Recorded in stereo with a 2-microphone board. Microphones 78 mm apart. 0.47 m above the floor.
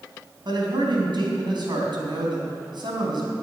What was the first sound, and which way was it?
A man speaking, 75° right (ahead or behind).